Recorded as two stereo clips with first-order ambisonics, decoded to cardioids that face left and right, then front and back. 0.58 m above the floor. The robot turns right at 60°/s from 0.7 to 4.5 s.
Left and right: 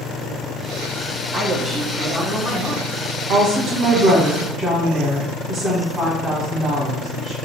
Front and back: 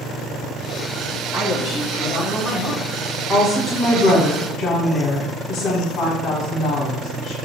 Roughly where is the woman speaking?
Right.